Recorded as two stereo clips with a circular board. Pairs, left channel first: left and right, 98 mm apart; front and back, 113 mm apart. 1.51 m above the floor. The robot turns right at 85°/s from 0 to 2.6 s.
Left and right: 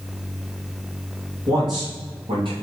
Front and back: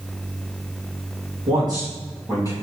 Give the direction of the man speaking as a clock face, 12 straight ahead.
5 o'clock.